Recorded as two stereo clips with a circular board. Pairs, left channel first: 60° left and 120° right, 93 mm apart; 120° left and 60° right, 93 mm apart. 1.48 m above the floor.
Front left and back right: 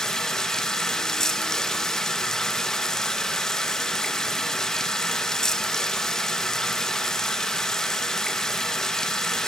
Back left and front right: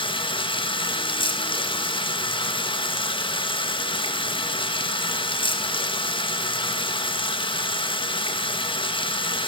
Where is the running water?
145° left, 1.8 m.